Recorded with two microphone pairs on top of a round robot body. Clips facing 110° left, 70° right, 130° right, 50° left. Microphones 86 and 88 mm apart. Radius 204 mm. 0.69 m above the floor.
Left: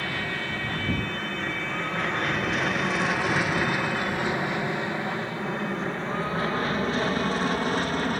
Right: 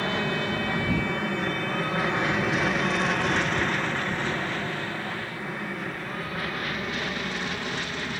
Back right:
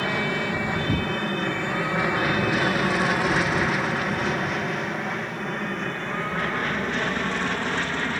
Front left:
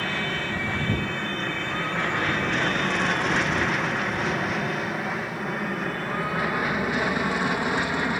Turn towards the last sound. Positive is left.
turn(degrees=120)